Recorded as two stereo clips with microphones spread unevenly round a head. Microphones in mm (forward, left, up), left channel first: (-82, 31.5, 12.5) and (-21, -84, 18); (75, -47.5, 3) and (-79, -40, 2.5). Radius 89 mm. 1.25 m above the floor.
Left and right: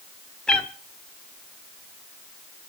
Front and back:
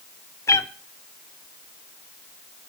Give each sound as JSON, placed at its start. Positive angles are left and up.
{"t": 0.5, "sound": "a cat meowing", "azimuth_deg": 35, "distance_m": 0.8}